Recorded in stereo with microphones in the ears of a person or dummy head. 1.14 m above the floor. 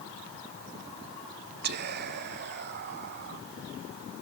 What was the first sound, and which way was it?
Whispering, 50° right (ahead or behind).